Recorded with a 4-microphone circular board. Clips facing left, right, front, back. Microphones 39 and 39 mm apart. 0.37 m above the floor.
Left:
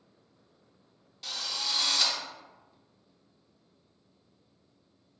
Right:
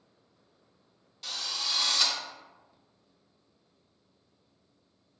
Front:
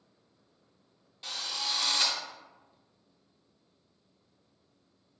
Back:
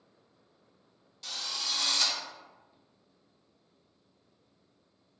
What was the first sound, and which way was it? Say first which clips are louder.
A drill: even, front 1 dB; 5° left.